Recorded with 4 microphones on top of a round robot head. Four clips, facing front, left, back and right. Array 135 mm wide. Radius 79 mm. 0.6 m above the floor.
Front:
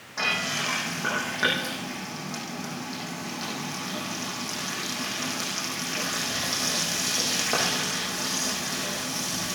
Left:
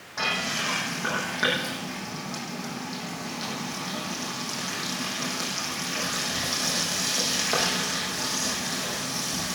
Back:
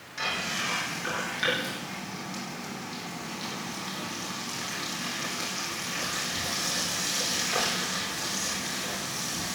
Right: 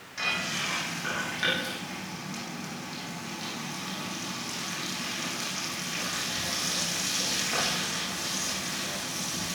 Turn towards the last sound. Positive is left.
turn(degrees=45)